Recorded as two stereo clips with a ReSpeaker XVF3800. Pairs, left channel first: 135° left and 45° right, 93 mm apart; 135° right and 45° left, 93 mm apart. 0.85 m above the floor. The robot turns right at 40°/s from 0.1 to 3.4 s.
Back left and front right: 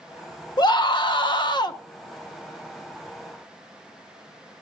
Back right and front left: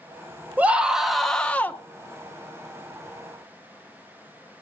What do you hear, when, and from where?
0.6 s a scream: 110° left, 1.4 m; by 1.8 s 160° left, 1.4 m